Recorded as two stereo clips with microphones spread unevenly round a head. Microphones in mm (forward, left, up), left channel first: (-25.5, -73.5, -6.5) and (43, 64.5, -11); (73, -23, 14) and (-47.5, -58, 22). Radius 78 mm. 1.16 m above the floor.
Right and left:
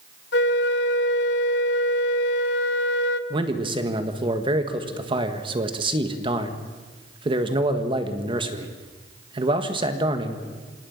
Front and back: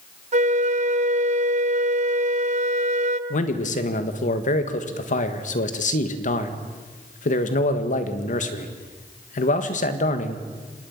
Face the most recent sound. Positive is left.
turn(degrees=5)